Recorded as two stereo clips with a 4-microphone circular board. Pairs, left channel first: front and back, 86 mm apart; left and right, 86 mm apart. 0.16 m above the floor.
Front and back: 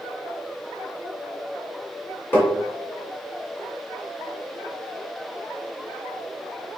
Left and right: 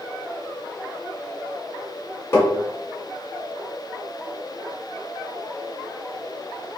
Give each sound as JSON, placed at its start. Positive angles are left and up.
{"t": 2.3, "sound": "tapping", "azimuth_deg": 50, "distance_m": 1.3}